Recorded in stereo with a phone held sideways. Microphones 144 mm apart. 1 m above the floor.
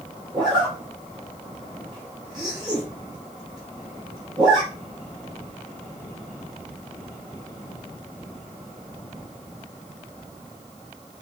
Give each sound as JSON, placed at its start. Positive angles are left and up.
{"t": 0.3, "sound": "a zipper", "side_deg": -30, "distance_m": 2.0}